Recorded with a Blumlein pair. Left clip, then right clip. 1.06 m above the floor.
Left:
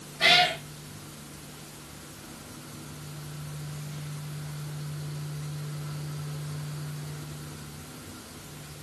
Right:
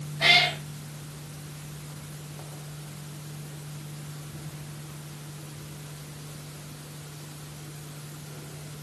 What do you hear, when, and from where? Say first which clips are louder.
0.2 s a cat meowing: right 1 dB; 15° left, 1.8 m